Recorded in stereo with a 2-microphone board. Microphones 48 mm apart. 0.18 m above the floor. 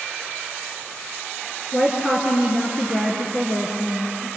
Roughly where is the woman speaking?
Centre.